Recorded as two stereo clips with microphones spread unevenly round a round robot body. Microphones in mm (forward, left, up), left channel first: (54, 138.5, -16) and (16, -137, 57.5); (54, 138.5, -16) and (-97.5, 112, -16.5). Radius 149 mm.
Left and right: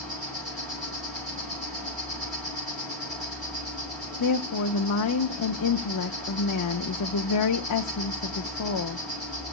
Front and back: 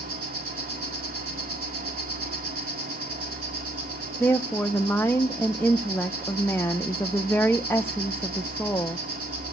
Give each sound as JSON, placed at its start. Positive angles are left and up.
{"t": 0.0, "sound": "an insect", "azimuth_deg": 170, "distance_m": 7.5}
{"t": 4.2, "sound": "a woman speaking", "azimuth_deg": 90, "distance_m": 0.8}